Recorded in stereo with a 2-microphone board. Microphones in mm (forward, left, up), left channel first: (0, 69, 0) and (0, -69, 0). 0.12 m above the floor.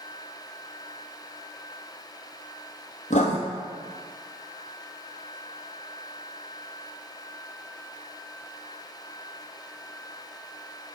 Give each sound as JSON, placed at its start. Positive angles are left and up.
{"t": 3.1, "sound": "writing", "side_deg": 60, "distance_m": 1.4}